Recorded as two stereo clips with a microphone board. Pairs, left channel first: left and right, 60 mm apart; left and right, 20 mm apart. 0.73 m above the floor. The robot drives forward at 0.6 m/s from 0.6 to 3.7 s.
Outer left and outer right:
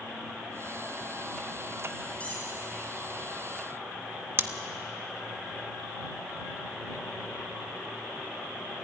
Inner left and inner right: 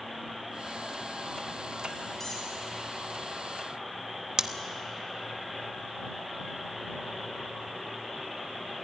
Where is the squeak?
25° left (ahead or behind), 6.5 m.